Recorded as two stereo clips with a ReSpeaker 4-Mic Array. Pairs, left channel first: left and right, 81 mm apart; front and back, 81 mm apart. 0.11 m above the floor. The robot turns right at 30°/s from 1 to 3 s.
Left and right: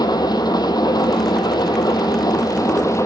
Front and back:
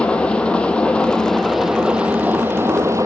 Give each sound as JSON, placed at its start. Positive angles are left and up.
{"t": 0.0, "sound": "an engine running", "azimuth_deg": 75, "distance_m": 0.9}